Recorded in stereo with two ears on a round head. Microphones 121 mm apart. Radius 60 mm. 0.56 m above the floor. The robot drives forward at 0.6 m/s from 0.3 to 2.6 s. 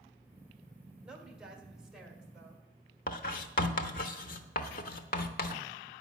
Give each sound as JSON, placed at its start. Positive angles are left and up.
{"t": 1.0, "sound": "a woman speaking", "side_deg": -5, "distance_m": 1.6}
{"t": 3.1, "sound": "writing", "side_deg": 65, "distance_m": 0.8}